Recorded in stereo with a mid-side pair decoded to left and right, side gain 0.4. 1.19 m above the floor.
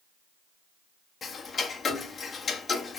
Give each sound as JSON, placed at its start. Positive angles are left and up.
{"t": 1.2, "sound": "ticking", "azimuth_deg": 50, "distance_m": 1.4}